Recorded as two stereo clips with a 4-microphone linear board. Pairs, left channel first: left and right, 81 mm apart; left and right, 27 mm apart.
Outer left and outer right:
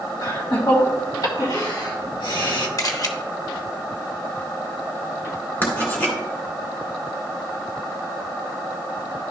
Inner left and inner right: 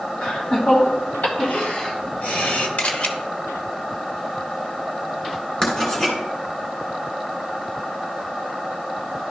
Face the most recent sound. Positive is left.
turn(degrees=25)  # may be behind; listen again after turning